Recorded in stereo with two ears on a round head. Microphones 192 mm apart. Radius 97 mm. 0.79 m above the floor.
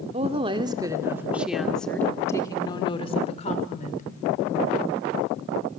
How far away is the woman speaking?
About 2 m.